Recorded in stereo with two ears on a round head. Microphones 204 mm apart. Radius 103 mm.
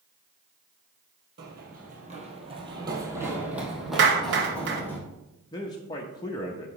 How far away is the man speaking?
About 0.6 m.